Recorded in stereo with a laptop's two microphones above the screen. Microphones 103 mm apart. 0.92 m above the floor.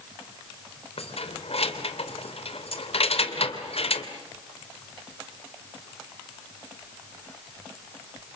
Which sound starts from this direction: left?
Keys jangling, at 1.0 s.